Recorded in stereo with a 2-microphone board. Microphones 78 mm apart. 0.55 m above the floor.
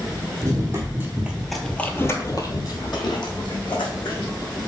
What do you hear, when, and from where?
0.4 s running footsteps: 40° right (ahead or behind), 1.2 m; by 4.3 s 75° left (ahead or behind), 2 m